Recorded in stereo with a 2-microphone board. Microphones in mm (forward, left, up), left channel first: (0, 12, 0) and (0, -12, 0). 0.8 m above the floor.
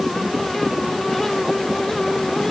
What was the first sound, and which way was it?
Only background noise.